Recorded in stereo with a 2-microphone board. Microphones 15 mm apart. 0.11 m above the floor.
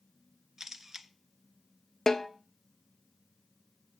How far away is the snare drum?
About 1.0 m.